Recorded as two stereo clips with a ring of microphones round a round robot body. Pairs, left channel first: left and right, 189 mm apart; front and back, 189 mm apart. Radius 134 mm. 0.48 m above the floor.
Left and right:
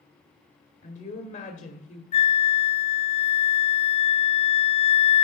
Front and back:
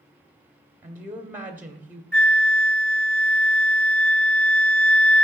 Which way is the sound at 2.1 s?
80° left.